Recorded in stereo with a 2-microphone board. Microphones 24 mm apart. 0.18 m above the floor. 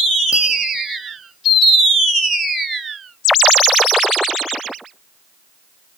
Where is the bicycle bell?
45° right (ahead or behind), 5.5 m.